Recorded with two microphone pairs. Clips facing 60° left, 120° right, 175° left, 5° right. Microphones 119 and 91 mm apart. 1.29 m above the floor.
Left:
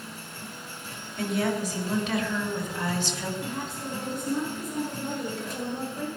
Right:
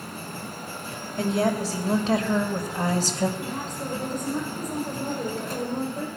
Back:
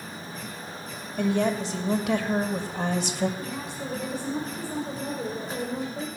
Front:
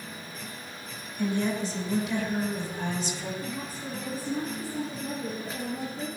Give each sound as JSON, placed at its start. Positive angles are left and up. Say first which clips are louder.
{"t": 1.2, "sound": "a woman speaking", "louder": "right 3 dB, back 3 dB", "azimuth_deg": 180, "distance_m": 3.0}
{"t": 3.4, "sound": "a woman speaking", "louder": "right 2 dB, back 2 dB", "azimuth_deg": -175, "distance_m": 5.0}